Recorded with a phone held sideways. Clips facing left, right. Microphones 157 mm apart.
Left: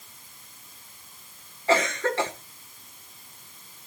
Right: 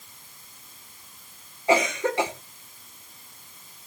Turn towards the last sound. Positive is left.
turn(degrees=-15)  # may be behind; listen again after turning